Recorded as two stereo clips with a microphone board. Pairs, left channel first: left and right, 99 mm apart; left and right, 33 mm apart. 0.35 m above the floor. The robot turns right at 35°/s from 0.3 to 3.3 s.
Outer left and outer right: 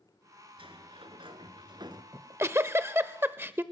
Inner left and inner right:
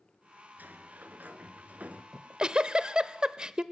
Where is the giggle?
30° right (ahead or behind), 0.8 m; by 3.6 s 25° right (ahead or behind), 0.8 m.